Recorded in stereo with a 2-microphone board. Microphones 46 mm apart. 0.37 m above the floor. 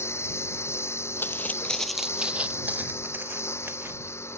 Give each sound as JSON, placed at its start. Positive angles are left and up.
{"t": 0.0, "sound": "a lawn mower", "side_deg": 85}
{"t": 1.2, "sound": "footsteps", "side_deg": 55}